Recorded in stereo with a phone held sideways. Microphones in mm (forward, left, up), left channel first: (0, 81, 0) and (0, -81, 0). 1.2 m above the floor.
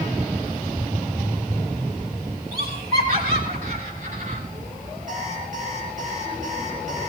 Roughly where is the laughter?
Right.